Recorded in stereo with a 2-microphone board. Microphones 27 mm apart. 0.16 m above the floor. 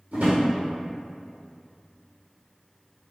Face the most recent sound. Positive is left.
turn(degrees=-65)  # may be behind; listen again after turning